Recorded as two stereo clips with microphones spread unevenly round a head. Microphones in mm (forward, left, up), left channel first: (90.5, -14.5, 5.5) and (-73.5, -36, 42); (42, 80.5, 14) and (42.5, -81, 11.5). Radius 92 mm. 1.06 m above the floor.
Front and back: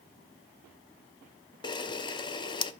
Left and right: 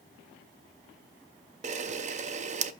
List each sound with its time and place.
1.6 s a camera shutter: 60° right, 0.5 m